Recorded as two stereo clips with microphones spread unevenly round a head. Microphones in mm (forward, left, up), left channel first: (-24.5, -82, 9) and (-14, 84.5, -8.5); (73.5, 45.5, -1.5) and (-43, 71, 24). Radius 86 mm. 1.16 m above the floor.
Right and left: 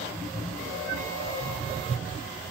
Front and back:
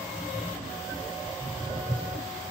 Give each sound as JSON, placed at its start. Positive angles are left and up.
{"t": 1.3, "sound": "footsteps", "azimuth_deg": 160, "distance_m": 1.5}